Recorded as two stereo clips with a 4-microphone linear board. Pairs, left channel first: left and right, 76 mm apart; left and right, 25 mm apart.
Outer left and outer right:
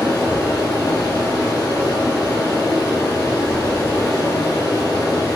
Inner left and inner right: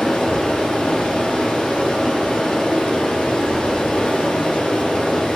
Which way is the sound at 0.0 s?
50° left (ahead or behind).